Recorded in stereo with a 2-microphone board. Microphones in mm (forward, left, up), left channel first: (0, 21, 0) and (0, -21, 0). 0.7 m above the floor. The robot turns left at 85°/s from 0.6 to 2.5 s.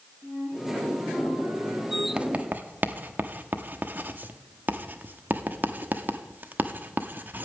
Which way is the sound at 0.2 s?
5° left.